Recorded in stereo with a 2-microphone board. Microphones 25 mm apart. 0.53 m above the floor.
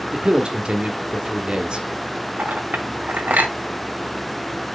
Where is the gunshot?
No gunshot in this recording.